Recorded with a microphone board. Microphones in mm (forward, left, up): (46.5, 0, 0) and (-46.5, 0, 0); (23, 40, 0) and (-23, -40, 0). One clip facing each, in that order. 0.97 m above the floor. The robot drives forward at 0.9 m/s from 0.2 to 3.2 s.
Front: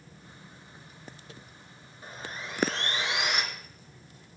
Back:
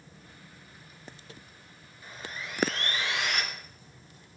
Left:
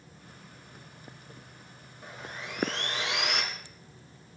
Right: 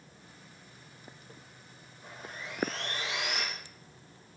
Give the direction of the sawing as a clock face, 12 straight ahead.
10 o'clock.